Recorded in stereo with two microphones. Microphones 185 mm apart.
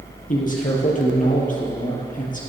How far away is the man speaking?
About 3 m.